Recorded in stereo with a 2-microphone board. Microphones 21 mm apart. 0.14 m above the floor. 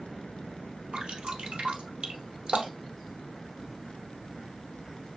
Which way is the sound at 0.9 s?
75° right (ahead or behind).